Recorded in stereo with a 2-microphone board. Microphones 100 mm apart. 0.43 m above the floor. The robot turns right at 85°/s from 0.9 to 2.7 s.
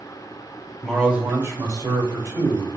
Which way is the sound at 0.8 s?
175° right.